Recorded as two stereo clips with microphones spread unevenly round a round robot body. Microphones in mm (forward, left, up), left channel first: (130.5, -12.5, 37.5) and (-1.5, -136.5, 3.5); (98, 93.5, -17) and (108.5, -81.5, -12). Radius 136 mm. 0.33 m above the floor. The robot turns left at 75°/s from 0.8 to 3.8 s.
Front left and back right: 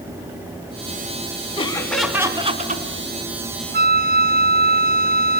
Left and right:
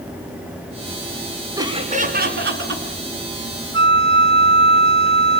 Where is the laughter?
15° right, 4 m; by 2.8 s 115° right, 4 m.